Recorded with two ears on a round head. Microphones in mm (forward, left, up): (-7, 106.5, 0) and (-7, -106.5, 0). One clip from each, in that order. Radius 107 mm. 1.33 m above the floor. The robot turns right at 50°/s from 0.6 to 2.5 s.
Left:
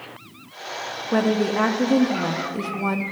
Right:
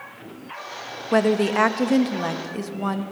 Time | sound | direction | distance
1.1 | a woman speaking | 90° right | 1.3 m